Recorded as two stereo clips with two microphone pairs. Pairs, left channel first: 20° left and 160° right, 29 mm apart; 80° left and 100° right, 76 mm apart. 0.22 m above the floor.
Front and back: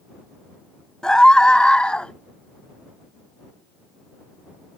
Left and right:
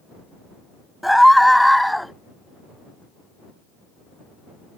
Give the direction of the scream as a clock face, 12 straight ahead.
1 o'clock.